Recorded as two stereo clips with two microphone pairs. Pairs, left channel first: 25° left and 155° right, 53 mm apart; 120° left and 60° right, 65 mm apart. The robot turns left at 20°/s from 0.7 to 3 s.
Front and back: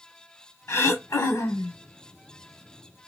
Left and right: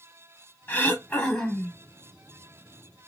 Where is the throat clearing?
60° left, 0.9 m; by 1.8 s 40° left, 0.9 m.